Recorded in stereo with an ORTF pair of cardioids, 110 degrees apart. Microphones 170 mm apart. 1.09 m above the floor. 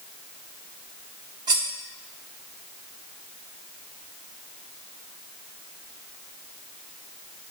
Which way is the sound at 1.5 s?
25° right.